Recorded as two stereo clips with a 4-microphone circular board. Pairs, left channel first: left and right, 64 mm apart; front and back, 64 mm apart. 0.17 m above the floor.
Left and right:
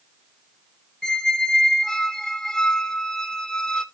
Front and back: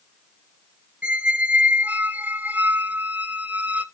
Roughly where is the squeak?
Behind.